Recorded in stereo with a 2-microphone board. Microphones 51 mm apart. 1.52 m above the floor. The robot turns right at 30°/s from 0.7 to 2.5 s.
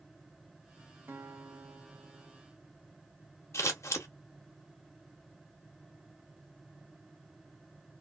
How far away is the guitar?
About 0.8 m.